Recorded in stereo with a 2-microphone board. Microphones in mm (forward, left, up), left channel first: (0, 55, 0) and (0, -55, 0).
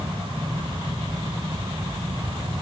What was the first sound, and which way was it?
Only background noise.